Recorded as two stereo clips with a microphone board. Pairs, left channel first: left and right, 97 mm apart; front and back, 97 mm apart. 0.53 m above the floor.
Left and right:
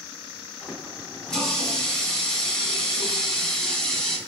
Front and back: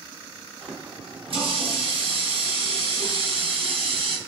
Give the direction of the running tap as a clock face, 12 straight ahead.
6 o'clock.